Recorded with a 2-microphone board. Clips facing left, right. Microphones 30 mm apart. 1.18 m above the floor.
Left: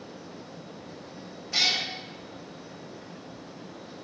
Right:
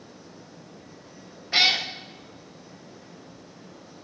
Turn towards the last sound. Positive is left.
turn(degrees=-30)  # may be behind; listen again after turning